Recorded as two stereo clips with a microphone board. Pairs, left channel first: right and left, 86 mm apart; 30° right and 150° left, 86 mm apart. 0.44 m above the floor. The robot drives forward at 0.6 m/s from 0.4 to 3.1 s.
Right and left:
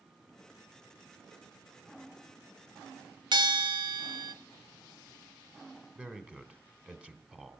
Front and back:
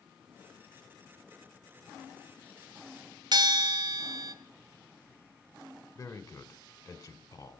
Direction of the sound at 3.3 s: 115° left.